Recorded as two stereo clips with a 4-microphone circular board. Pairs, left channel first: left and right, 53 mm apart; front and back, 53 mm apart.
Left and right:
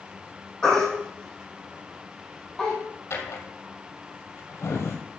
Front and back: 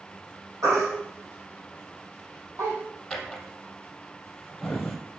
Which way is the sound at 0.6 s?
165° left.